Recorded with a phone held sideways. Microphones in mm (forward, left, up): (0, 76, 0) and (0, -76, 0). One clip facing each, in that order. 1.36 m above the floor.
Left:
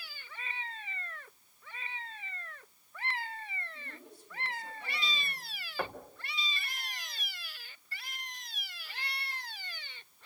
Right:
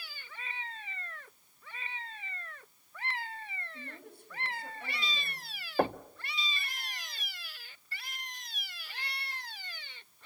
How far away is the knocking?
About 0.8 m.